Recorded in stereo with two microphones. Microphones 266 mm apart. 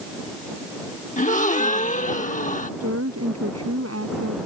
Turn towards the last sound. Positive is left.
turn(degrees=-60)  # may be behind; listen again after turning